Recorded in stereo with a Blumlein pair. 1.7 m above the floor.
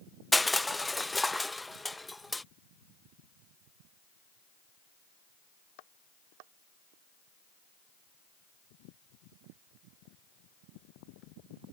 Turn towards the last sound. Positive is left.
turn(degrees=5)